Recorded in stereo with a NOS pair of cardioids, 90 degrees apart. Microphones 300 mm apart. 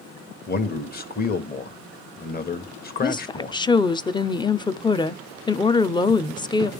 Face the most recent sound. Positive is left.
turn(degrees=15)